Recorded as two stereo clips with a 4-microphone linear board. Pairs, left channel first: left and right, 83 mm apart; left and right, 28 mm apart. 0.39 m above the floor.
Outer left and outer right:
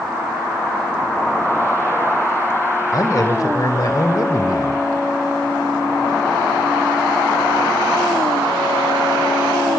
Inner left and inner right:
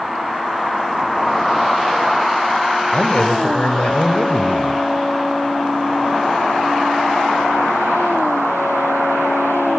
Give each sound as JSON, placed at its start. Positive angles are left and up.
{"t": 2.9, "sound": "a man speaking", "side_deg": 50, "distance_m": 2.0}